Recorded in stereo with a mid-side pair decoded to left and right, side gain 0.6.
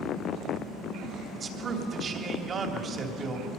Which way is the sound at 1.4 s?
35° right.